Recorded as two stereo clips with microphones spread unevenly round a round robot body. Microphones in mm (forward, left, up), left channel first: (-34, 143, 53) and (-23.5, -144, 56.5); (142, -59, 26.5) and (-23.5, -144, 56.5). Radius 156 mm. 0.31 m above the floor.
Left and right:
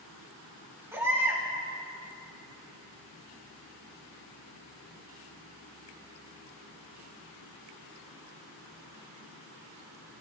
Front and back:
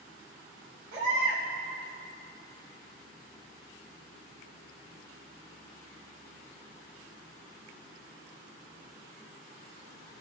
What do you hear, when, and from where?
0.9 s a baby crying: 170° right, 2 m